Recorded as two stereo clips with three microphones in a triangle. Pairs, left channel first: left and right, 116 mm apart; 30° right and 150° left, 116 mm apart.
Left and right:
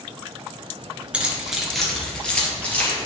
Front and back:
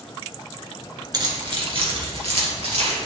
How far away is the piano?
I don't hear a piano.